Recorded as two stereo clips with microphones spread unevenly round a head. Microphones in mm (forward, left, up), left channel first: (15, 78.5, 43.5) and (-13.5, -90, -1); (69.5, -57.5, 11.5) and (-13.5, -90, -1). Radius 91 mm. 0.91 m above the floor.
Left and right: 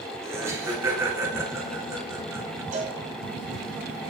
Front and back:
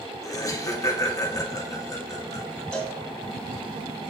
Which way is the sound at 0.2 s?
30° right.